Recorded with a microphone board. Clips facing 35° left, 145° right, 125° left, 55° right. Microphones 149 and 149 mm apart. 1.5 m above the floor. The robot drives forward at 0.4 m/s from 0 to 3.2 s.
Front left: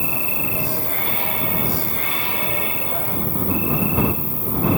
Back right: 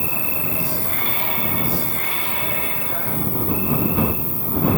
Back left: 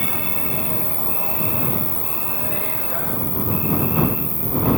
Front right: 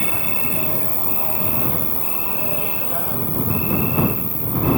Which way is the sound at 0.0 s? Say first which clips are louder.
Even, even; 160° left.